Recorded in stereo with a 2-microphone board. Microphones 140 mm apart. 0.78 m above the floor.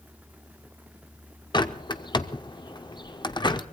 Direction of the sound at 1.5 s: 35° left (ahead or behind).